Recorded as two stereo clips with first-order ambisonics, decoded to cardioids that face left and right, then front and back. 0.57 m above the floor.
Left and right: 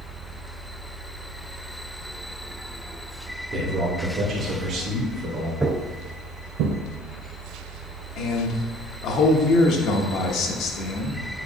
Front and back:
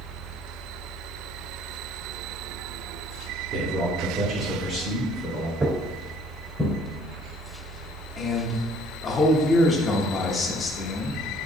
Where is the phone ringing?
No phone ringing in this recording.